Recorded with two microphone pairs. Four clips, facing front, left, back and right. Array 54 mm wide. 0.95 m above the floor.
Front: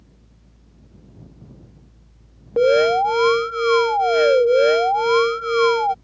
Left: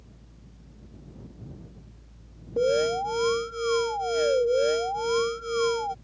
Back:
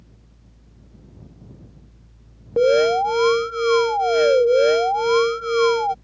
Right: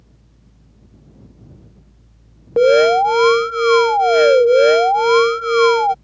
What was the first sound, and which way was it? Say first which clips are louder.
An alarm: right 13 dB, front 1 dB; 75° right.